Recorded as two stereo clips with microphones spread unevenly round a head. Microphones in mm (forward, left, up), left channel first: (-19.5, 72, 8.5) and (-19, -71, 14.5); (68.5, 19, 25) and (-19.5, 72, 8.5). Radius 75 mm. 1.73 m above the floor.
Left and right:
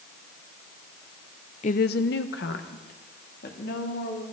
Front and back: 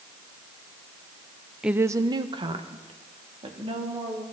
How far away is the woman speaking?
About 0.7 m.